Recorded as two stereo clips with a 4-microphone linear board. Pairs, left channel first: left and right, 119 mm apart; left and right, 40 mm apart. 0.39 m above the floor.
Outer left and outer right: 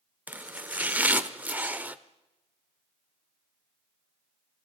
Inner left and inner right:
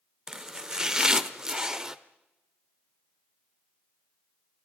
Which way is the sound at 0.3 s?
15° right (ahead or behind).